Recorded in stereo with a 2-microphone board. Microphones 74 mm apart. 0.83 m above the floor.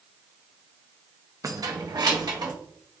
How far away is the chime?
No chime in this recording.